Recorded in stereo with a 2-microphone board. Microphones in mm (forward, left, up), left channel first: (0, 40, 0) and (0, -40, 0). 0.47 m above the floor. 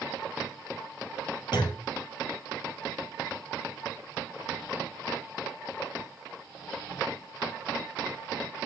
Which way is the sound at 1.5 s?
65° left (ahead or behind).